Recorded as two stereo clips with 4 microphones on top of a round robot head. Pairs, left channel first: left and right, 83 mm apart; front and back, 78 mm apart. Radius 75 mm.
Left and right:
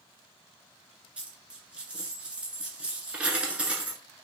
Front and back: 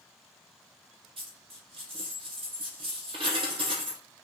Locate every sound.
1.2 s a dropped coin: 165° right, 1.2 m